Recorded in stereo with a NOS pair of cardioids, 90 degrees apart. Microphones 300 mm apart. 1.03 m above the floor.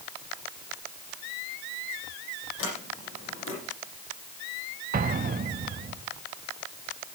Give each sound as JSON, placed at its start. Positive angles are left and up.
{"t": 2.6, "sound": "a sliding door", "azimuth_deg": 45, "distance_m": 8.0}
{"t": 4.9, "sound": "an explosion", "azimuth_deg": -30, "distance_m": 1.5}